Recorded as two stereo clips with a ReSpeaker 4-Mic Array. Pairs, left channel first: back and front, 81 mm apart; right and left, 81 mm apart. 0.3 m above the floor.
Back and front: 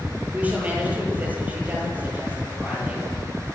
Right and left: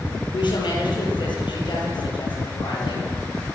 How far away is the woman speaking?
About 8 m.